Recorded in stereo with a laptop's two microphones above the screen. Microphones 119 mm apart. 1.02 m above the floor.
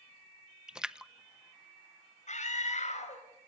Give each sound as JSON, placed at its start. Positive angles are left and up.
{"t": 0.7, "sound": "a splash", "side_deg": -5, "distance_m": 0.5}
{"t": 2.3, "sound": "a scream", "side_deg": 80, "distance_m": 5.0}